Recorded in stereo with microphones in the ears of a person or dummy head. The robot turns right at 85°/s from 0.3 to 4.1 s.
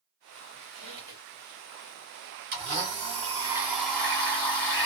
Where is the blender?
115° right, 1.3 m; by 4.9 s 20° left, 1.3 m.